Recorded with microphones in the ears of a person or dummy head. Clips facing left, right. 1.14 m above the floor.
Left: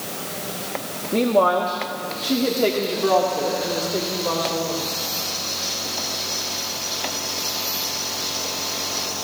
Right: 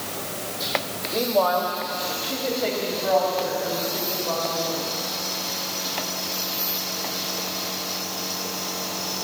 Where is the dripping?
No dripping in this recording.